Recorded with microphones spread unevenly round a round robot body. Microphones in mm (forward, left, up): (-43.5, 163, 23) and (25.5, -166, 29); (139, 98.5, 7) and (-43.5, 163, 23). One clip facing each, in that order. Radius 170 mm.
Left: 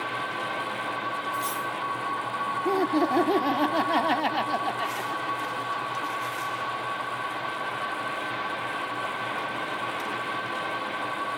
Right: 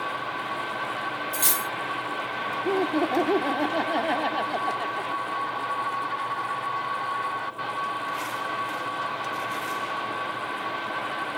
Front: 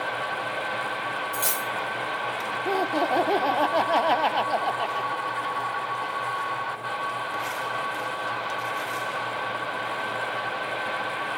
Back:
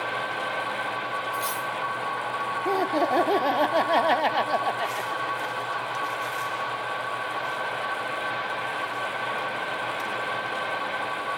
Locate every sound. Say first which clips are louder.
1.3 s cutlery clinking: right 1 dB, front 1 dB; 45° right, 0.9 m
2.6 s laughter: even, back 1 dB; 85° left, 1.4 m